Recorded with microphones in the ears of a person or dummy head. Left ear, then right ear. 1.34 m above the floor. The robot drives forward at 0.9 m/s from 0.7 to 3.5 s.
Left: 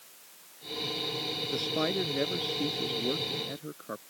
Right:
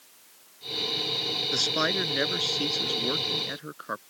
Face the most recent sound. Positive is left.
turn(degrees=-40)  # may be behind; listen again after turning